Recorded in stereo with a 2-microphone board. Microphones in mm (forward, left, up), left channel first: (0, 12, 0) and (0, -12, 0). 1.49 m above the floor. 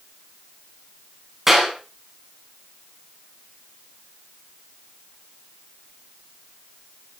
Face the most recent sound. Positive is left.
turn(degrees=-10)  # may be behind; listen again after turning